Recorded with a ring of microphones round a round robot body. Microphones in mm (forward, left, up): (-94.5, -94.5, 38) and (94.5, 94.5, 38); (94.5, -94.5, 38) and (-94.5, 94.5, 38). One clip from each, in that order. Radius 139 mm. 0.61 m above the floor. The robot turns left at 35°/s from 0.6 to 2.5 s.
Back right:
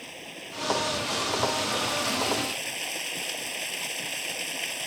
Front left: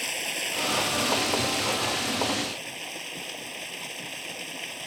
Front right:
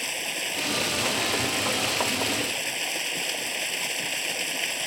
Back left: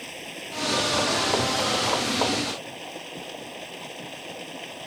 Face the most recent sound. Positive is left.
turn(degrees=-65)